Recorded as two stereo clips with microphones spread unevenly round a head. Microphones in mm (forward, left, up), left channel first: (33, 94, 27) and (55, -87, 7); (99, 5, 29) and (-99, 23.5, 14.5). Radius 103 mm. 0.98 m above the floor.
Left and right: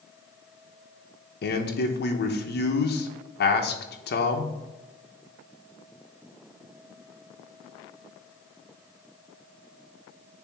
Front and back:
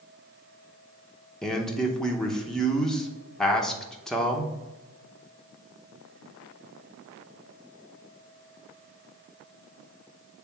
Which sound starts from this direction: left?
A man speaking, at 1.4 s.